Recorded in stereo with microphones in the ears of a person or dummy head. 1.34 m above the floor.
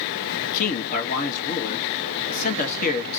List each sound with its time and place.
0.4 s a man speaking: 40° left (ahead or behind), 1.5 m